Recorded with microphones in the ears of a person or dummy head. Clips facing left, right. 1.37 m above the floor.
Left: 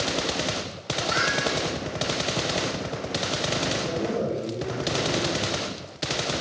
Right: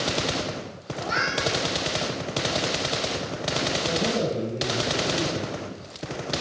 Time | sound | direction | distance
0.9 | a cat meowing | 25° right (ahead or behind) | 3.5 m
3.9 | a man speaking | centre (ahead or behind) | 4 m